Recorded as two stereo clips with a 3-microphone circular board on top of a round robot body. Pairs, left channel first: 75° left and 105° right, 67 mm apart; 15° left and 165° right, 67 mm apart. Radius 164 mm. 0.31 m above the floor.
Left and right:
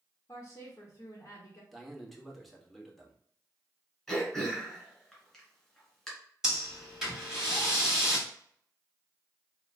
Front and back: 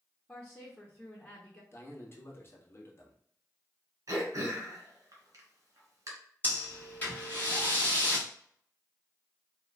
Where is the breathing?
25° right, 1.7 m.